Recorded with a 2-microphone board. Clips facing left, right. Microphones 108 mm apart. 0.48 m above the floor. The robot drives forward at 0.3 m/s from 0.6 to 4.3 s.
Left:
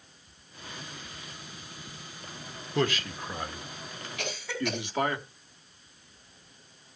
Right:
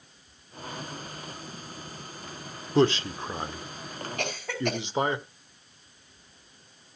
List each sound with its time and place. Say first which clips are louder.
2.8 s a man speaking: right 6 dB; 30° right (ahead or behind), 1.0 m; by 5.2 s 20° right (ahead or behind), 1.3 m
4.2 s a cough: right 2 dB; 50° right (ahead or behind), 4.5 m